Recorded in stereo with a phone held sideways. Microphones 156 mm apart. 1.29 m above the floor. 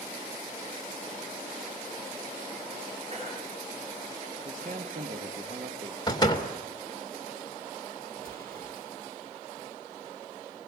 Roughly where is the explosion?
Right.